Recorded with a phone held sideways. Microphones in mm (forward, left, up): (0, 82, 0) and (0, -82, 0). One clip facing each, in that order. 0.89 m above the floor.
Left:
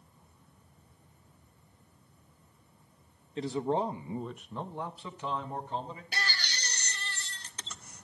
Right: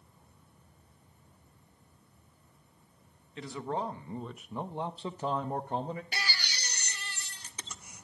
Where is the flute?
I don't hear a flute.